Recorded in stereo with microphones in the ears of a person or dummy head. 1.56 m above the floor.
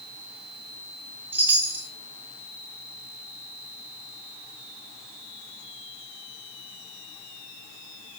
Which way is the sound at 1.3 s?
15° right (ahead or behind).